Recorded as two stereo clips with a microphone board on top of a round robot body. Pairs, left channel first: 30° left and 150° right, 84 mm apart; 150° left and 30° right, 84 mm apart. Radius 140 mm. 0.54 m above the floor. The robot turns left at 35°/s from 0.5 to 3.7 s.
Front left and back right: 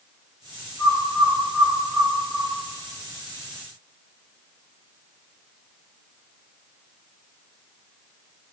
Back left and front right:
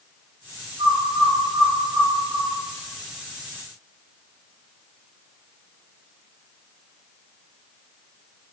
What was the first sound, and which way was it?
A bird, 30° right.